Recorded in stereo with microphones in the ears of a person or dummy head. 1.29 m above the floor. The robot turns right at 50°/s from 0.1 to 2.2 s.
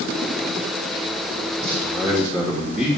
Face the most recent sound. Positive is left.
turn(degrees=-5)  # may be behind; listen again after turning